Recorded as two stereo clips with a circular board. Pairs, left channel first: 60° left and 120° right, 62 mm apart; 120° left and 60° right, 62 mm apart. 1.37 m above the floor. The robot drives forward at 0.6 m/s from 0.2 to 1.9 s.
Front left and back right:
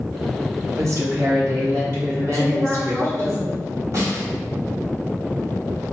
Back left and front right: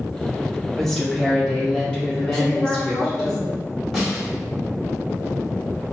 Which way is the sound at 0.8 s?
150° right.